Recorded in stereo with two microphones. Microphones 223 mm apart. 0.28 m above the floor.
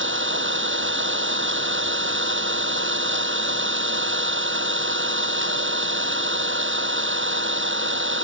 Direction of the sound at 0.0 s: 65° right (ahead or behind).